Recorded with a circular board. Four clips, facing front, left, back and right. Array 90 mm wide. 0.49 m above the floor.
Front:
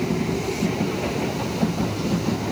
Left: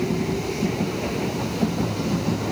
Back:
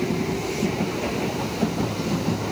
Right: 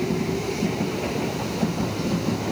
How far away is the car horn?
No car horn in this recording.